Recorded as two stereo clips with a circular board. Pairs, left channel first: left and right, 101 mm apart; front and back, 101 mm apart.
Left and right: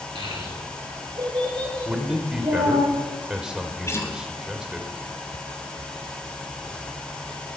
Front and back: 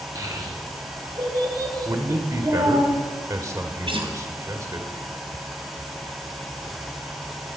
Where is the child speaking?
125° right, 4 m; by 2.9 s 130° right, 8 m.